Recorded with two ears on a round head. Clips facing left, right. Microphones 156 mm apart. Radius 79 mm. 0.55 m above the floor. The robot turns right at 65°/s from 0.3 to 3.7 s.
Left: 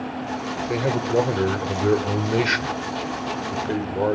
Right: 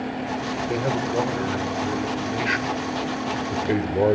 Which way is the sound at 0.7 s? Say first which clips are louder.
Left 3 dB; 5° left.